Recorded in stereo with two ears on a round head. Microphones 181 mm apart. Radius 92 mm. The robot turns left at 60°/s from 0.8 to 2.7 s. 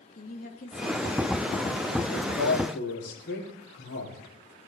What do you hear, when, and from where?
0.1 s a woman speaking: 135° left, 2.5 m; by 2.0 s 65° left, 2.5 m
2.1 s a man speaking: 90° left, 5 m; by 4.2 s 55° left, 5 m